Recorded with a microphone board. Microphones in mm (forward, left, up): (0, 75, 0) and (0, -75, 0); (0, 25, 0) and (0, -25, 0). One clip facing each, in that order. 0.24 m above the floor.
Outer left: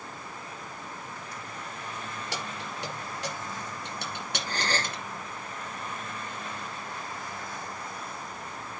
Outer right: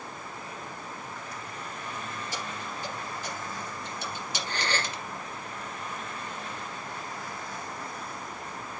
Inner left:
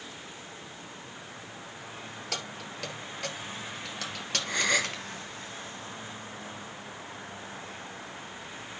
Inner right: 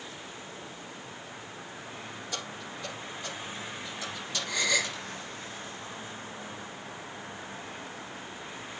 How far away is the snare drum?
No snare drum in this recording.